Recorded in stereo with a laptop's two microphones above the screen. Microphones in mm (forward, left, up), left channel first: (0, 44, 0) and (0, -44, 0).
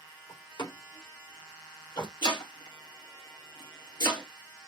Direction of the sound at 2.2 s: 65° left (ahead or behind).